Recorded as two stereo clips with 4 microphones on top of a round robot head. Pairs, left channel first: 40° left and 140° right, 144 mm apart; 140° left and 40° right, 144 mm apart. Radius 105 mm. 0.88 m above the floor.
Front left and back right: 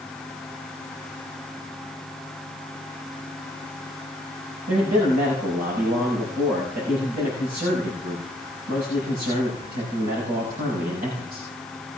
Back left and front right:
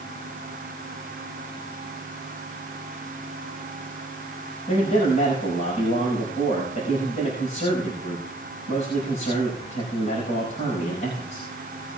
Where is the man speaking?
170° right, 6 m.